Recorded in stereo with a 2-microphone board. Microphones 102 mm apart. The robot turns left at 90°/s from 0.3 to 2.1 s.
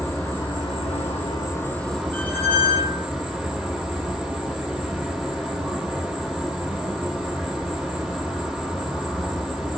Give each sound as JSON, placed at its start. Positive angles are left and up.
{"t": 0.0, "sound": "an insect", "azimuth_deg": 145, "distance_m": 1.1}
{"t": 2.1, "sound": "a squeak", "side_deg": 15, "distance_m": 0.5}